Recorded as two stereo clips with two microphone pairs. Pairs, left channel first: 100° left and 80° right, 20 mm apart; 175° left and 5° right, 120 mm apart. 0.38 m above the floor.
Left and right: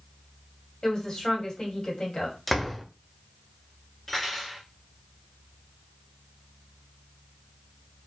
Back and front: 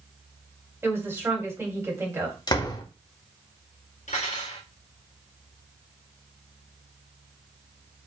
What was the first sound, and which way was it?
A woman speaking, 60° left.